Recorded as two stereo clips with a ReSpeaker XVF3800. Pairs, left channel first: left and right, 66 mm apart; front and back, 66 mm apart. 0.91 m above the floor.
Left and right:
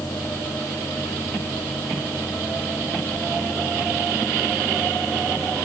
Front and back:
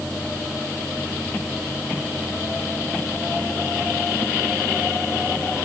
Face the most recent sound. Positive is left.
No sound to turn to.